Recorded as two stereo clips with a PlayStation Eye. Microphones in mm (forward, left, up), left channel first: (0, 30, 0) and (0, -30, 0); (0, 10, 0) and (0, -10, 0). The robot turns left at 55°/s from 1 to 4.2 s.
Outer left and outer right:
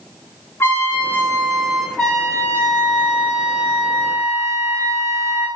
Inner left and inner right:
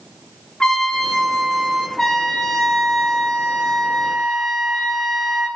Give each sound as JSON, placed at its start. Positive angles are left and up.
{"t": 0.6, "sound": "a trumpet", "azimuth_deg": 45, "distance_m": 1.0}
{"t": 2.0, "sound": "a trumpet", "azimuth_deg": -175, "distance_m": 2.0}